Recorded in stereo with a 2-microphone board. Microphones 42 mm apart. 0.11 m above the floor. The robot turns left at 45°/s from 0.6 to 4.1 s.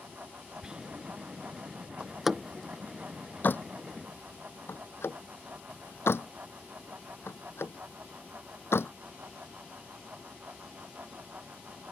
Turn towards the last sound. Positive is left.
turn(degrees=70)  # may be behind; listen again after turning